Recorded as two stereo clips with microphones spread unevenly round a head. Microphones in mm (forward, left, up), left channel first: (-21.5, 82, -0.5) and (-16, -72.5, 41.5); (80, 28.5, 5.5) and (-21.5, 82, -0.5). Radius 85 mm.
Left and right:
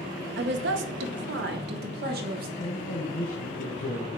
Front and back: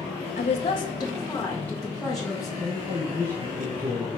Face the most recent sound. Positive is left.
turn(degrees=95)